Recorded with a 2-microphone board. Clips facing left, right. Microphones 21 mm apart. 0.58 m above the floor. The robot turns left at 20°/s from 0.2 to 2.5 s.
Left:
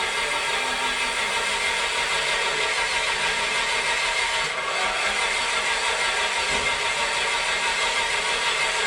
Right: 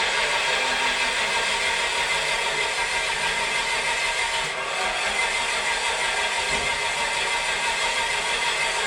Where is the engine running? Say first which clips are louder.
Right 2 dB; 135° right, 0.7 m; by 8.9 s 175° left, 0.7 m.